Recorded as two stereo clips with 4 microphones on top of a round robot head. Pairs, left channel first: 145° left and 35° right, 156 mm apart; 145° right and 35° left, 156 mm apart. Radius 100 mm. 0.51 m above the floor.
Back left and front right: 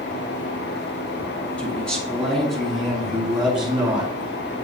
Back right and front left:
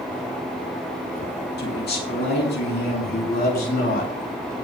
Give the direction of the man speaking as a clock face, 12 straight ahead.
4 o'clock.